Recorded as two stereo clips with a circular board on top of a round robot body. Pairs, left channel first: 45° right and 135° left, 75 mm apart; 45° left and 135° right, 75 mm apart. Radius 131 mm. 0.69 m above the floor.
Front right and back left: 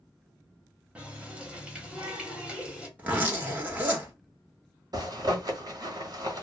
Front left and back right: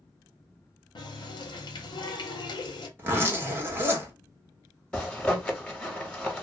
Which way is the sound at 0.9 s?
60° left.